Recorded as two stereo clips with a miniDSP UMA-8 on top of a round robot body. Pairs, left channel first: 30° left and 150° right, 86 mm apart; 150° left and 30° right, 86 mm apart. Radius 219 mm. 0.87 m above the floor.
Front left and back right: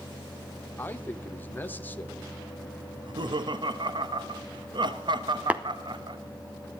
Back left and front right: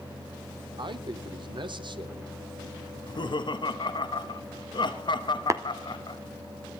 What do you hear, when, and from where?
0.8 s a man speaking: 35° right, 1.5 m
2.9 s laughter: straight behind, 1.2 m
5.5 s tapping: 80° right, 1.2 m